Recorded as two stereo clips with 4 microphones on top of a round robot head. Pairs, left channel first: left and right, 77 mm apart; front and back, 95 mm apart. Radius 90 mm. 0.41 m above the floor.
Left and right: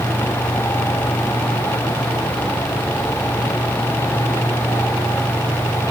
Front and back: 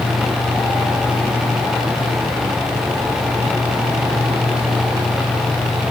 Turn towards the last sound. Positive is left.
No sound to turn to.